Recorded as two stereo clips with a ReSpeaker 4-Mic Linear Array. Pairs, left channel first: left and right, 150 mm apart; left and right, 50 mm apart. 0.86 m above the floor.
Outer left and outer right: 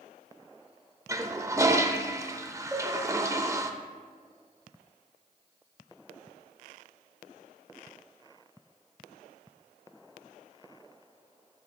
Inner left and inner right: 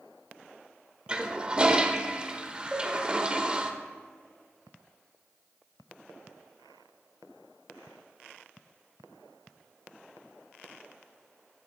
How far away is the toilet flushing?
About 0.5 m.